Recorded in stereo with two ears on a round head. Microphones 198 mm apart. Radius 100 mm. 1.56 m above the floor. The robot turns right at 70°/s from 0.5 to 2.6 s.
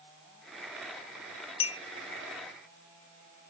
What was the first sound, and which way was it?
A clink, 25° left (ahead or behind).